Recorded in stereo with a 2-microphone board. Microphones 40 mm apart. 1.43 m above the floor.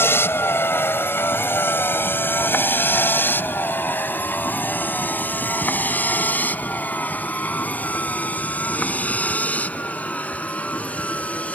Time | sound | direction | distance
0.0 | a vehicle | 75° left (ahead or behind) | ?